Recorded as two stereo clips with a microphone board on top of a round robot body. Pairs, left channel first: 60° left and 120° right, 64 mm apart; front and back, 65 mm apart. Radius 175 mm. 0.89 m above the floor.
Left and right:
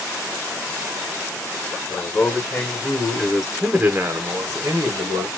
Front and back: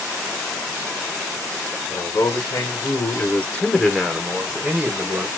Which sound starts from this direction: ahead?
A man speaking, at 1.9 s.